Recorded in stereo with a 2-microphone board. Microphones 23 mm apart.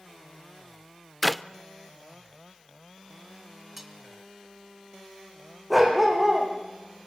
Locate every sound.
1.2 s a clap: 5° left (ahead or behind), 0.6 m
3.8 s cutlery clinking: 10° right (ahead or behind), 2.5 m
5.7 s a dog barking: 5° right (ahead or behind), 6 m